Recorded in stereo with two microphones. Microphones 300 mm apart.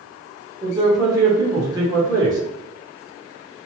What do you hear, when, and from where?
0.6 s a man speaking: 10° right (ahead or behind), 1.3 m